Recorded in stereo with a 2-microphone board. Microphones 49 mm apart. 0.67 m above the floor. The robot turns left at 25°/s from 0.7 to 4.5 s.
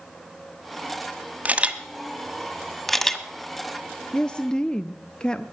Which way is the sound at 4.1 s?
20° left (ahead or behind).